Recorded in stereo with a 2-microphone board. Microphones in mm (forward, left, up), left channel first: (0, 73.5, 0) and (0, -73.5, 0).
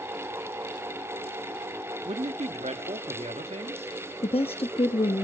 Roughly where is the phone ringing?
No phone ringing in this recording.